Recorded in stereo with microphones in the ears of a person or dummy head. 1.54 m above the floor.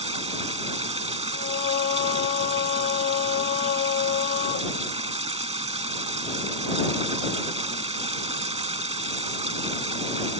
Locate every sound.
0.0 s running water: 35° right (ahead or behind)
1.3 s singing: 45° left (ahead or behind)